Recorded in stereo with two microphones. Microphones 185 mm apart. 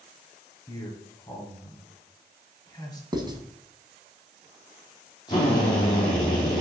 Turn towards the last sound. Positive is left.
turn(degrees=25)  # may be behind; listen again after turning